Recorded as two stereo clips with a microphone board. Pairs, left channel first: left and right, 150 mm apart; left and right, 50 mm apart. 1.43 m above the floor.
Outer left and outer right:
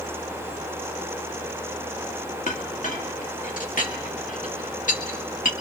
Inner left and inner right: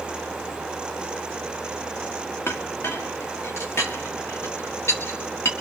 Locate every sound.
2.5 s a clink: 60° left (ahead or behind), 1.9 m